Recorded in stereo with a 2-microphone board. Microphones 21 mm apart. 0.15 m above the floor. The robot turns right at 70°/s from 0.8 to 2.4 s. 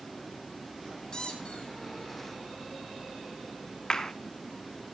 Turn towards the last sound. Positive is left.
turn(degrees=30)  # may be behind; listen again after turning